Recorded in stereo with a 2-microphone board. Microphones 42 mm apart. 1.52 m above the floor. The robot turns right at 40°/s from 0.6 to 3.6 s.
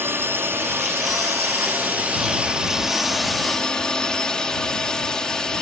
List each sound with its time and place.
0.0 s a drone: 105° right; by 5.6 s 15° left